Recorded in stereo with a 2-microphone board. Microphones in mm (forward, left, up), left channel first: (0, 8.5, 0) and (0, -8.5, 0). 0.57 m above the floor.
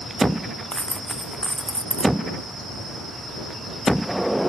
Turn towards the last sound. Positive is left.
turn(degrees=85)